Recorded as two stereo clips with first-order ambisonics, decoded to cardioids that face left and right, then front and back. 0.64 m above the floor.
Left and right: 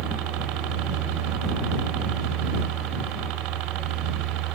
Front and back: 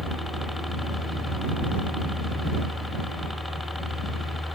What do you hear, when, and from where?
0.0 s a helicopter: 85° right